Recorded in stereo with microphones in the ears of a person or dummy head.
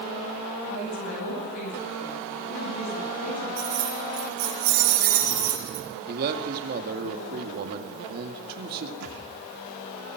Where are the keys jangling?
70° right (ahead or behind), 8 m.